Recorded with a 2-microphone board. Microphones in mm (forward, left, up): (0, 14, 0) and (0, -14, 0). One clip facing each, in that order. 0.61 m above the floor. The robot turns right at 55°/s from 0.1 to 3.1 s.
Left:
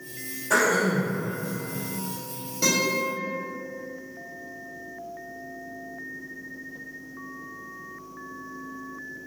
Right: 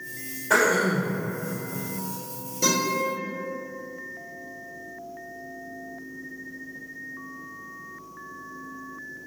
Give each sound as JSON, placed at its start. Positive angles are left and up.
{"t": 0.5, "sound": "throat clearing", "azimuth_deg": -40, "distance_m": 1.1}
{"t": 2.6, "sound": "a guitar", "side_deg": 30, "distance_m": 1.7}